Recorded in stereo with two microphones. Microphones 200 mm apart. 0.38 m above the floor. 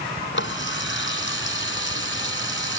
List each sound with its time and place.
0.3 s a running tap: 75° left (ahead or behind)